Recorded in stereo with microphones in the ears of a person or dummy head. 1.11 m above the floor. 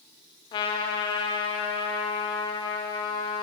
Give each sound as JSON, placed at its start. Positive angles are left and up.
{"t": 0.5, "sound": "a trumpet", "side_deg": 25, "distance_m": 0.8}